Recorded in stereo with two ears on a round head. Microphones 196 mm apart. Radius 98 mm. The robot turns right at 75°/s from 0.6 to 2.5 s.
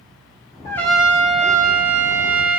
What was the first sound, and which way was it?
A trumpet, 160° left.